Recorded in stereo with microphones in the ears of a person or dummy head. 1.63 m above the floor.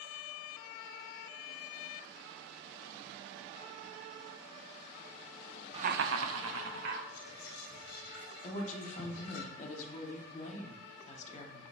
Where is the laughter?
30° right (ahead or behind), 0.5 m; by 7.0 s 70° right (ahead or behind), 1.8 m.